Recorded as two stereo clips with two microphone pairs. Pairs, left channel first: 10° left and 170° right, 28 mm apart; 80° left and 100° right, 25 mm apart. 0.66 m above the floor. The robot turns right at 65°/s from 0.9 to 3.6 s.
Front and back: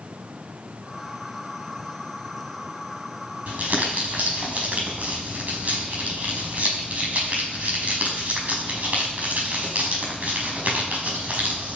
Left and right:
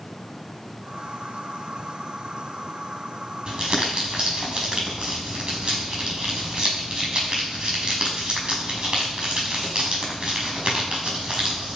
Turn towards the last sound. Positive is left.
turn(degrees=-145)